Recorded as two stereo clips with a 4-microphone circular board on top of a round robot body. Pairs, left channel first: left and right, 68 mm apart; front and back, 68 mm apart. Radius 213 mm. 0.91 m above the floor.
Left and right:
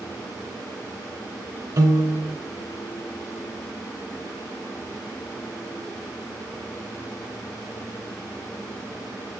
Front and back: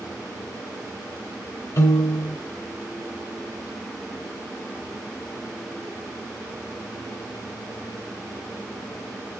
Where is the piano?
50° right, 1.1 m.